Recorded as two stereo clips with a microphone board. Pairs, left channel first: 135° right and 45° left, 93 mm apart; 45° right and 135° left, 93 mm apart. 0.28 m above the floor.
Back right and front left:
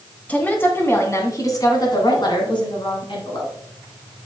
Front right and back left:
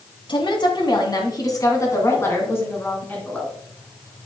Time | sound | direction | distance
0.3 | a woman speaking | 65° right | 2 m